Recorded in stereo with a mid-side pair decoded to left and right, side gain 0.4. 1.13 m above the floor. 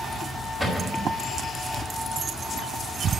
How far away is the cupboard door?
About 4.5 m.